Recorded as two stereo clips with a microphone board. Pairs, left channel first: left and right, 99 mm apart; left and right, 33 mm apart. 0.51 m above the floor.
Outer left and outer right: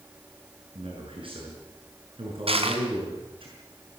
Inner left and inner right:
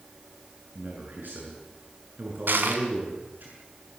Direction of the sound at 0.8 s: 65° right (ahead or behind).